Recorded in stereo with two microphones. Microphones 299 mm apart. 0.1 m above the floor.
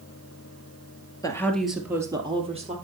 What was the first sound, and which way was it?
A woman speaking, 10° left (ahead or behind).